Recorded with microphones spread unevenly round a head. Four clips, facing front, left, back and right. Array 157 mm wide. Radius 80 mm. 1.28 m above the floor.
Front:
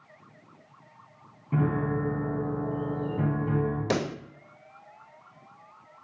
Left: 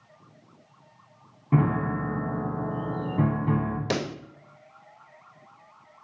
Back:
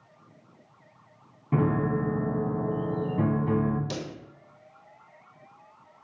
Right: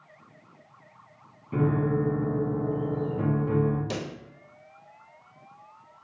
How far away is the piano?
About 1.8 m.